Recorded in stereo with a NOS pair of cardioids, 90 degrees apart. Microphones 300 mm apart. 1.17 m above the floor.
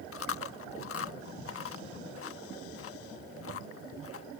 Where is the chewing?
45° left.